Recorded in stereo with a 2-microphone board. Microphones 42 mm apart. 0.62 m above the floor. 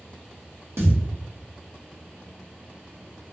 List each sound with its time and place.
0.8 s a thud: 80° right, 0.9 m